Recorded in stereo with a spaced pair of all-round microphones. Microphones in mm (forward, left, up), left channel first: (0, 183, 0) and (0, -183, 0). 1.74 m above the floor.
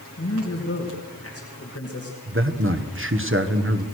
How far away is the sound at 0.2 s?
About 2.5 m.